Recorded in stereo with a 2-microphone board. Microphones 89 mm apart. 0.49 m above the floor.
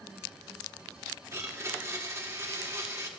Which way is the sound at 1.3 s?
35° right (ahead or behind).